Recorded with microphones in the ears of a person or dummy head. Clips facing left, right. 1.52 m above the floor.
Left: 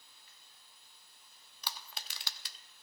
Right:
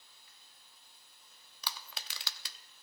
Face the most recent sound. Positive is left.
turn(degrees=-65)  # may be behind; listen again after turning